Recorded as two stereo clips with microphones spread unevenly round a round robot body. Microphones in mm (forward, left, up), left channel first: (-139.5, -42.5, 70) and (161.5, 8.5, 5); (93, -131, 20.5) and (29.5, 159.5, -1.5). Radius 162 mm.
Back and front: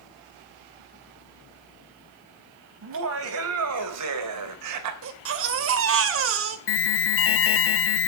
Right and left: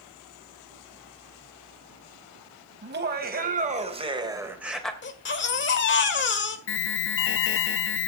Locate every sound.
2.8 s laughter: 50° left, 4 m; by 4.9 s 10° left, 2.5 m
5.0 s a baby crying: 25° right, 1.9 m
6.7 s an alarm: 125° right, 0.8 m